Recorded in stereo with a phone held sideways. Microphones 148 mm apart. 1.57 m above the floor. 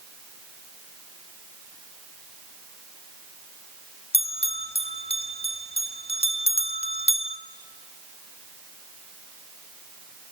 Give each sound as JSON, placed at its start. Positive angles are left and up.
{"t": 4.1, "sound": "a bell", "side_deg": 45, "distance_m": 1.3}